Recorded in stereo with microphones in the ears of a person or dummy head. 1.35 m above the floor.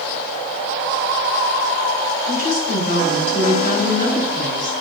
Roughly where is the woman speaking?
Left.